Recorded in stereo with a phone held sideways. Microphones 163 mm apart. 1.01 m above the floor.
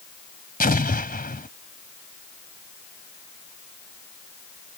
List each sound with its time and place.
0.6 s an explosion: 65° left (ahead or behind)